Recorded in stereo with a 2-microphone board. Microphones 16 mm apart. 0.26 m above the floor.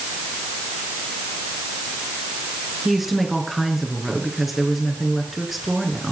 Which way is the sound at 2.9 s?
10° right (ahead or behind).